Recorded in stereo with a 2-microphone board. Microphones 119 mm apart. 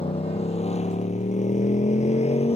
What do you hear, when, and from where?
0.0 s a motorcycle: 55° left (ahead or behind); by 2.6 s 60° left (ahead or behind)